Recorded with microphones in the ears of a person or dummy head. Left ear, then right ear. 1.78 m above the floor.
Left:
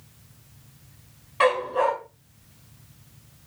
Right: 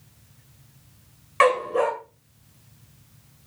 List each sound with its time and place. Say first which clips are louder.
1.4 s a dog barking: right 2 dB; 45° right (ahead or behind), 2.5 m